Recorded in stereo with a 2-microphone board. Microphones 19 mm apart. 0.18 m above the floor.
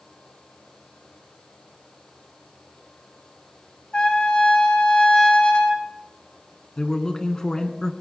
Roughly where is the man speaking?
Left.